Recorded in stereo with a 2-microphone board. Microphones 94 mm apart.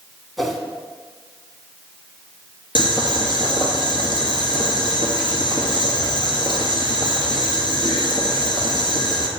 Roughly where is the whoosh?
Centre.